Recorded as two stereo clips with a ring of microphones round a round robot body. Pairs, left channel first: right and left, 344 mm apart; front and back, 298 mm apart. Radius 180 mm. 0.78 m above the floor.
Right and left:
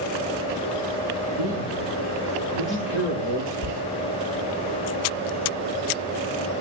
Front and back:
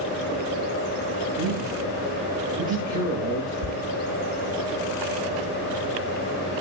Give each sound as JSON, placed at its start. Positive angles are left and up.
{"t": 1.4, "sound": "a man speaking", "azimuth_deg": -140, "distance_m": 9.5}
{"t": 3.6, "sound": "ticking", "azimuth_deg": -145, "distance_m": 9.0}